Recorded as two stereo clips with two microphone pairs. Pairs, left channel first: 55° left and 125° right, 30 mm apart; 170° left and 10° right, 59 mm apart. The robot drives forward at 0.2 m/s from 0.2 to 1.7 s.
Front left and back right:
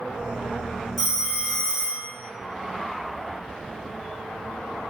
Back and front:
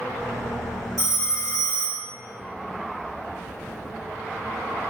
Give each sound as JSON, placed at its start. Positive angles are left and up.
{"t": 1.0, "sound": "a phone ringing", "azimuth_deg": 150, "distance_m": 1.6}